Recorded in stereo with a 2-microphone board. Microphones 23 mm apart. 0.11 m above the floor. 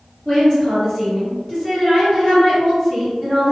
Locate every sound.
0.2 s a woman speaking: 40° left (ahead or behind), 1.9 m